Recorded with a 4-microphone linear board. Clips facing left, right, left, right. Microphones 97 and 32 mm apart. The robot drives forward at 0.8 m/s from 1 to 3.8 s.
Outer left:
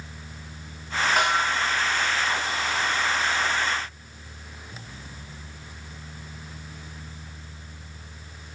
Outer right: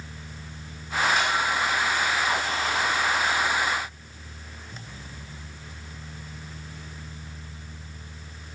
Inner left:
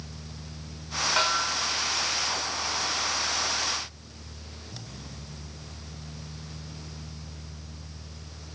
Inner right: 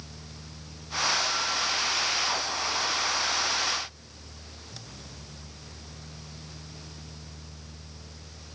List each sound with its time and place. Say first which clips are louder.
1.2 s a snare drum: outer left 2 dB, inner left 3 dB; 60° left (ahead or behind), 1.6 m; by 1.6 s 50° left (ahead or behind), 1.8 m